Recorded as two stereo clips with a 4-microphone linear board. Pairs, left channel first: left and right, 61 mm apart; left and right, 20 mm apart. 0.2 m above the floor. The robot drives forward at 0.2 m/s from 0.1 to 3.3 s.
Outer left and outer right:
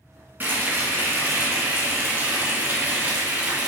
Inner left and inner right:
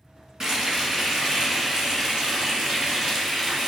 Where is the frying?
30° right (ahead or behind), 2 m; by 3.7 s 25° right (ahead or behind), 2.5 m.